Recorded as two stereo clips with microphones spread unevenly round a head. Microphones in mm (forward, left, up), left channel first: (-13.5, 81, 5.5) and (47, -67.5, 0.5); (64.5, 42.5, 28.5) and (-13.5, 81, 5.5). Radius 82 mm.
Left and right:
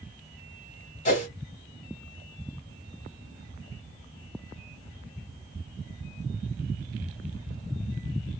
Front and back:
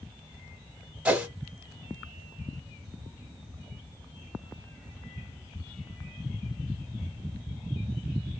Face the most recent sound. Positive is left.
turn(degrees=75)